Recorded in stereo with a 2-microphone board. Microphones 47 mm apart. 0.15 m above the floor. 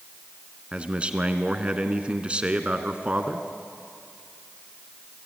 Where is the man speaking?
25° right (ahead or behind), 1.5 m.